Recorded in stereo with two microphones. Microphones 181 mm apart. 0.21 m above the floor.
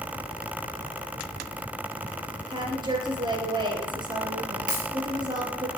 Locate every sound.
2.5 s a woman speaking: 25° right (ahead or behind), 5 m
4.7 s a dropped coin: 50° right (ahead or behind), 5.5 m